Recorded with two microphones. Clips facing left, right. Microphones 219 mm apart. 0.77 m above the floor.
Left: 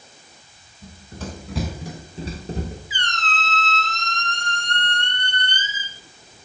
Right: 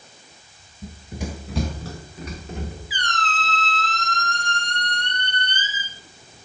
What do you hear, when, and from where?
0.8 s running footsteps: 25° right (ahead or behind), 1.0 m; by 2.8 s 40° left (ahead or behind), 1.1 m
2.9 s a squeak: 25° left (ahead or behind), 1.2 m